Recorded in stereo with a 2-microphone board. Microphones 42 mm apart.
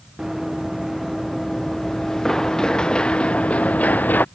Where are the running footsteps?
5° right (ahead or behind); by 4.3 s 50° left (ahead or behind).